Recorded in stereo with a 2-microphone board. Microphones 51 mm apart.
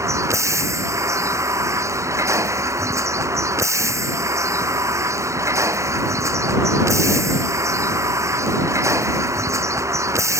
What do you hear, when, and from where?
0.0 s a vehicle: 80° right